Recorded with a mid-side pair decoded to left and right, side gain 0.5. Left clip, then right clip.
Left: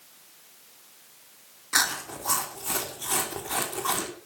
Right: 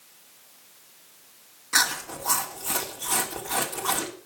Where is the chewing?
5° right, 3.5 m.